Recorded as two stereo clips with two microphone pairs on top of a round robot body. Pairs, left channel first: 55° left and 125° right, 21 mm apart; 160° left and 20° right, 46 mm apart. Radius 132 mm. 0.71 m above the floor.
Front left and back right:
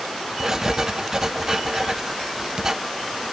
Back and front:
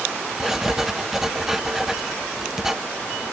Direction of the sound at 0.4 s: 110° right.